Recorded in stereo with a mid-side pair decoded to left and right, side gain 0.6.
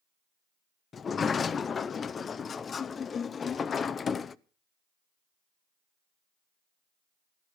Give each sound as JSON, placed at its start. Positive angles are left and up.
{"t": 0.9, "sound": "a sliding door", "azimuth_deg": 35, "distance_m": 0.9}